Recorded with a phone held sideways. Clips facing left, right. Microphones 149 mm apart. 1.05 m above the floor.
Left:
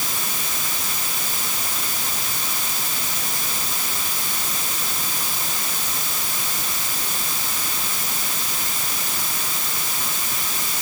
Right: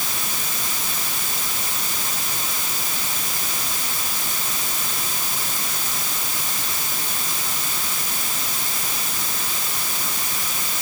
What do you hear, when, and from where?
Only background noise.